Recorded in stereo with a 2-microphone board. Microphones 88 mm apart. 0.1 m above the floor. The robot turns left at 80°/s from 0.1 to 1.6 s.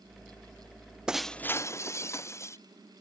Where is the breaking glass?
170° right; by 2.6 s 150° left.